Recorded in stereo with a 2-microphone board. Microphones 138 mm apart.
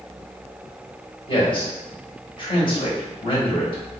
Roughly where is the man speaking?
Left.